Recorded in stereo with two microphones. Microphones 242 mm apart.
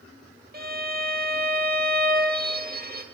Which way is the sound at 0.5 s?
40° right (ahead or behind).